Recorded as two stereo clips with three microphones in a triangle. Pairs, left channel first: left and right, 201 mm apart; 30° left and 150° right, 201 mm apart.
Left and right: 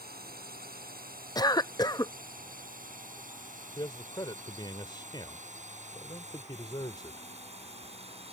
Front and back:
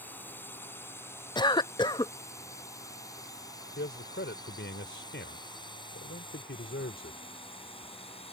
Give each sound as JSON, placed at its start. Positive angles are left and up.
{"t": 0.0, "sound": "a drone", "azimuth_deg": -50}
{"t": 1.4, "sound": "a cough", "azimuth_deg": 55}
{"t": 3.8, "sound": "a man speaking", "azimuth_deg": 25}